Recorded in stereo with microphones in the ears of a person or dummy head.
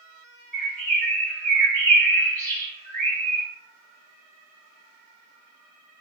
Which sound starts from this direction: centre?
A bird, at 0.5 s.